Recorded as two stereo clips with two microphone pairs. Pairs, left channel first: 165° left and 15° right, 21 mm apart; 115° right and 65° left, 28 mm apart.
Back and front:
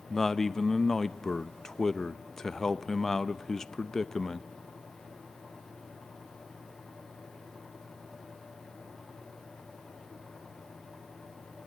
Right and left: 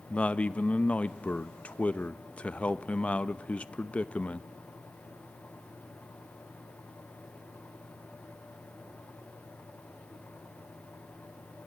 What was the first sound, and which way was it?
A man speaking, 120° right.